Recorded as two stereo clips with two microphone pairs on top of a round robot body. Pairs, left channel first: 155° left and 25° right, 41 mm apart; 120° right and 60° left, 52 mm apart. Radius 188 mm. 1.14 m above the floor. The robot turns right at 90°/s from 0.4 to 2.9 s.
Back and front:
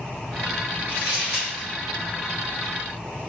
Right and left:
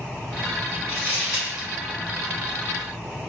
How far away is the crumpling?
About 1.0 m.